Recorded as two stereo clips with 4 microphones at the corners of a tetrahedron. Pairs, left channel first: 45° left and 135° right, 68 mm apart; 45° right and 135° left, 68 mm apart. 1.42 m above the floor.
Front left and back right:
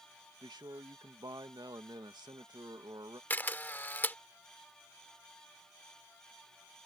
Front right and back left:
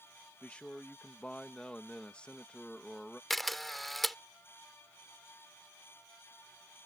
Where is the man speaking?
120° right.